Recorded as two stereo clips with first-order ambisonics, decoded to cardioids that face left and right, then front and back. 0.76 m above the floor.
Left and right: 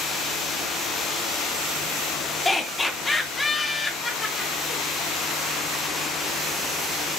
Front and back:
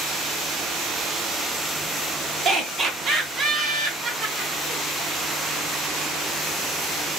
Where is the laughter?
160° left, 1.0 m.